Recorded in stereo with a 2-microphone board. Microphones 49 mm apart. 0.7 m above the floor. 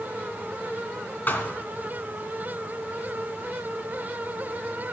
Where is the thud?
35° left (ahead or behind), 2.5 m.